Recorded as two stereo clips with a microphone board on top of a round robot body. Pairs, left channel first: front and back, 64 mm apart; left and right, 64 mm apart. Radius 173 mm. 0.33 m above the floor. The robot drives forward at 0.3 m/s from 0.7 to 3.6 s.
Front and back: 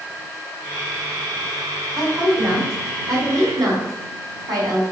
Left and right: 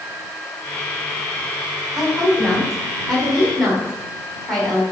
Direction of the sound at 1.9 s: Straight behind.